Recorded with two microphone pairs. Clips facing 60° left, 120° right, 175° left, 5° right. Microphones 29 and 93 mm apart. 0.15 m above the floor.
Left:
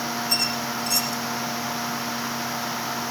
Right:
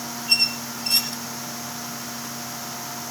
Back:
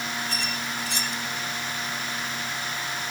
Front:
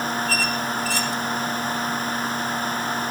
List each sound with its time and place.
0.3 s a squeak: 125° right, 1.6 m